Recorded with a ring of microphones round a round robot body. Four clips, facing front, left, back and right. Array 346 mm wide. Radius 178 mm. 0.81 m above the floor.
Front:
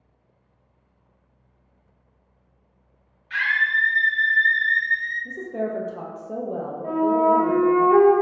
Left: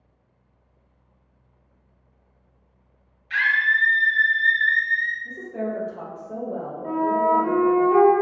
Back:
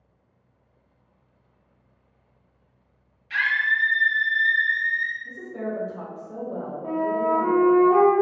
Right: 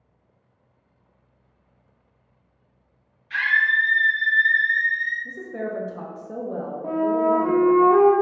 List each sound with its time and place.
3.3 s a scream: 140° left, 1.3 m
5.2 s a woman speaking: 30° right, 0.6 m
6.8 s a flute: 60° right, 0.5 m